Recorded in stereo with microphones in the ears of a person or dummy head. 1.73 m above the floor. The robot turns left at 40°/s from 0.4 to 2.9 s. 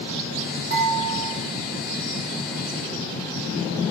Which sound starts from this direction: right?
Dishes clattering, at 0.7 s.